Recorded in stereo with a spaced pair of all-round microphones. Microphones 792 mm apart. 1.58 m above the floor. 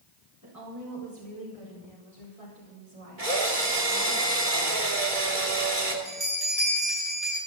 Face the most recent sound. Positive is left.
turn(degrees=-70)  # may be behind; listen again after turning